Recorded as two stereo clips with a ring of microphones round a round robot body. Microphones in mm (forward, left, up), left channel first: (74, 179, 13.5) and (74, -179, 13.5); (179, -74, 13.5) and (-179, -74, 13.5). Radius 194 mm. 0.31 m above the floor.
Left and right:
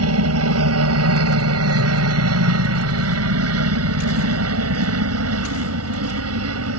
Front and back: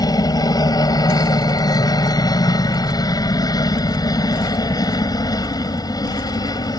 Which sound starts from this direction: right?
A helicopter, at 0.0 s.